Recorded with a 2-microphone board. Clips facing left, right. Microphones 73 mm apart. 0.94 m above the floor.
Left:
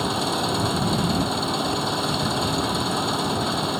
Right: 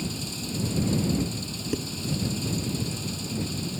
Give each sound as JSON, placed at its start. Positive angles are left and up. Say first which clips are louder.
{"t": 0.0, "sound": "an engine running", "louder": "left 11 dB", "side_deg": 65}
{"t": 1.7, "sound": "dishes clattering", "louder": "left 4 dB", "side_deg": -10}